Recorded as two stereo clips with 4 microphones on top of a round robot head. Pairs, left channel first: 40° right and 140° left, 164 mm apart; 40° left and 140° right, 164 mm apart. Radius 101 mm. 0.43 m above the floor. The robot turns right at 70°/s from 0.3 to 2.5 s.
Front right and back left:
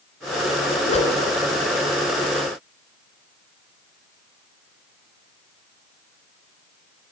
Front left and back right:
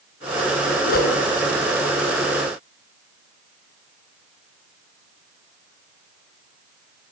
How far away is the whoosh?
About 3.5 m.